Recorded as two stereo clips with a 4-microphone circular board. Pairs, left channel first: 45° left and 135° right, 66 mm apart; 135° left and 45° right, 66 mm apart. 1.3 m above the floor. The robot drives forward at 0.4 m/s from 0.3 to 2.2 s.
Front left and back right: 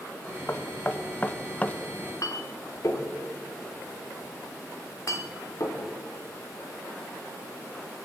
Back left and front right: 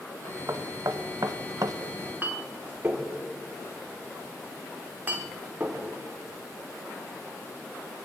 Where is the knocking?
10° right, 1.0 m; by 1.8 s 25° right, 0.6 m.